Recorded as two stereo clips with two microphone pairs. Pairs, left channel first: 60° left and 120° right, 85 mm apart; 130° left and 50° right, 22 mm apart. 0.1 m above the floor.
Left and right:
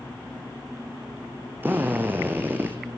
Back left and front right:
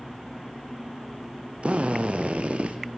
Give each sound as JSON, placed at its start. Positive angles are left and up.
{"t": 1.6, "sound": "a drill", "azimuth_deg": -50, "distance_m": 2.0}